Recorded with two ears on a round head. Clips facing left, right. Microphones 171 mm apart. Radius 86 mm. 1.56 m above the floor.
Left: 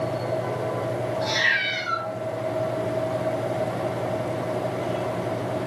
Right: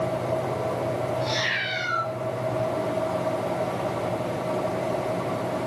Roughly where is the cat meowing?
Centre.